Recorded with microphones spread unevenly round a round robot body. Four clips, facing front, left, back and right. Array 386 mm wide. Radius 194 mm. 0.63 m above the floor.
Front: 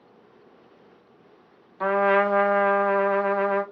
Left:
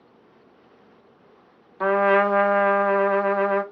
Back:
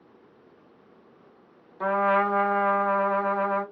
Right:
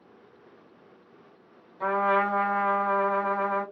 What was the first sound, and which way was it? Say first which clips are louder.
A trumpet: left 6 dB, front 2 dB; 100° left.